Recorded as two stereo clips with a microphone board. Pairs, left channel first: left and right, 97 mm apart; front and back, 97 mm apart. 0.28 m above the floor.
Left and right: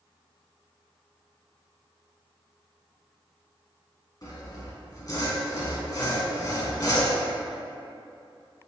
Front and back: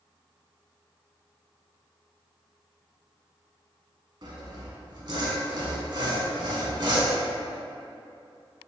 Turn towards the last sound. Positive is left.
turn(degrees=140)